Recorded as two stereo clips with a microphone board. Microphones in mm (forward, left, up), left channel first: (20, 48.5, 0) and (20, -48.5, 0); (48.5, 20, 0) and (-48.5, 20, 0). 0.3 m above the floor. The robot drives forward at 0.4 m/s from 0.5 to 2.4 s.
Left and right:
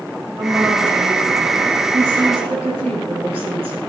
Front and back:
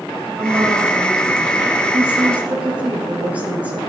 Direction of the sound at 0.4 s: 95° right.